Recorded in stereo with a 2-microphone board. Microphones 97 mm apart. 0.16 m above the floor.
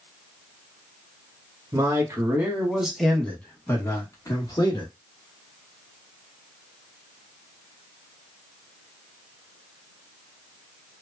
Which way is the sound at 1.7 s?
35° right (ahead or behind).